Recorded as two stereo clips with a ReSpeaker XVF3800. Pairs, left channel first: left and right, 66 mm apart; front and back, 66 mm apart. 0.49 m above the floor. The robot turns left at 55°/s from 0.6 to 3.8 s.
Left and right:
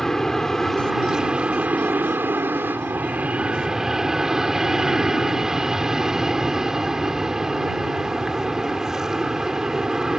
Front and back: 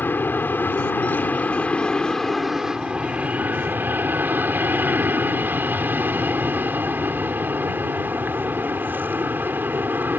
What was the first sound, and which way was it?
An aircraft, 10° left.